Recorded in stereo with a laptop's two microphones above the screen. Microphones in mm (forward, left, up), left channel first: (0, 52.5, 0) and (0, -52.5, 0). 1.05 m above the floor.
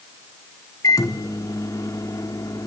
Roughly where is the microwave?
Left.